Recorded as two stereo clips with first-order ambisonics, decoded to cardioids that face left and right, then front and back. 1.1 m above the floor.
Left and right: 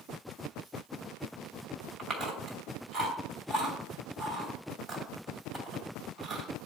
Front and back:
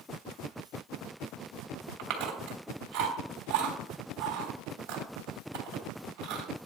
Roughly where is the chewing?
Behind.